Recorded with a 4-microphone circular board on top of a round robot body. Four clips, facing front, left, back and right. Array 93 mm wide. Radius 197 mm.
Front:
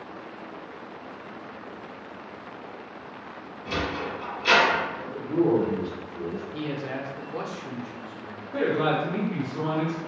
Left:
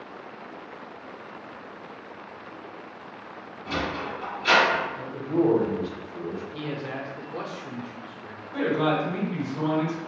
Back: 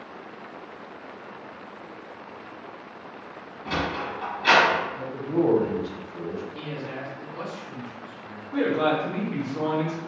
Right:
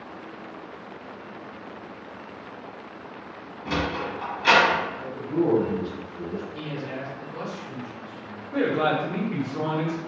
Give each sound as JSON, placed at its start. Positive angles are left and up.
{"t": 3.6, "sound": "a sliding door", "azimuth_deg": -115, "distance_m": 1.2}
{"t": 5.0, "sound": "a man speaking", "azimuth_deg": 140, "distance_m": 0.8}
{"t": 6.5, "sound": "a man speaking", "azimuth_deg": 35, "distance_m": 0.8}
{"t": 8.5, "sound": "a man speaking", "azimuth_deg": -90, "distance_m": 1.2}